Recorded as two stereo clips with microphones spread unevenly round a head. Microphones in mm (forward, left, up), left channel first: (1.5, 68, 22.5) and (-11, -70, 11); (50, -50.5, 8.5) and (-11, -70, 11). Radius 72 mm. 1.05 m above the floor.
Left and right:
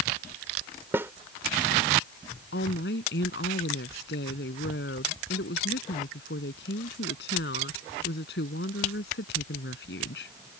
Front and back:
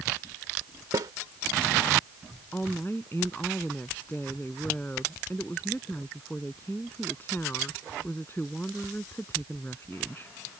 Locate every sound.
0.9 s a snare drum: 170° right
2.5 s a woman speaking: 95° left